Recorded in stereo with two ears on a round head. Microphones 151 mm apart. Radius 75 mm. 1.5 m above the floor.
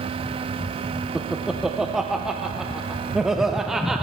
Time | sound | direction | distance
1.1 | laughter | centre (ahead or behind) | 0.6 m